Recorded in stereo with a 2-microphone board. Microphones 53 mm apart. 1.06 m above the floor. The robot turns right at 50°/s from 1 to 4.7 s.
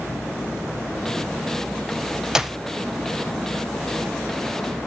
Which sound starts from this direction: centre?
A clap, at 2.4 s.